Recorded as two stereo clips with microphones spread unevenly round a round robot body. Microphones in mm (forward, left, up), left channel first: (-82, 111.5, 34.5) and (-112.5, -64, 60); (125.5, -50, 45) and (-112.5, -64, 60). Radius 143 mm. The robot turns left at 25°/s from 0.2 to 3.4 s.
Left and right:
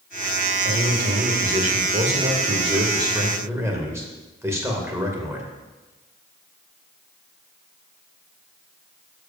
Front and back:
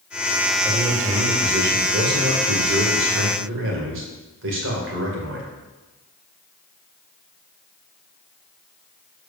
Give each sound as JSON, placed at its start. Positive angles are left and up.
{"t": 0.6, "sound": "a man speaking", "azimuth_deg": -110, "distance_m": 2.5}